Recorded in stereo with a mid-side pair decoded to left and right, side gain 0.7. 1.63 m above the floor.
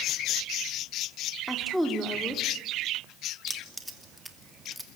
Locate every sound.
1.5 s a woman speaking: straight ahead, 4.5 m
3.5 s keys jangling: straight ahead, 2.5 m